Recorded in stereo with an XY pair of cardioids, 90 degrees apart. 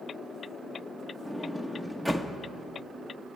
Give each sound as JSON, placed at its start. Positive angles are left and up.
{"t": 1.2, "sound": "a sliding door", "azimuth_deg": -10, "distance_m": 1.1}